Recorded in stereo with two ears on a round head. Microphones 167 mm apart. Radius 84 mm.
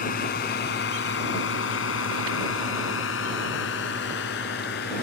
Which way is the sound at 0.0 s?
50° left (ahead or behind).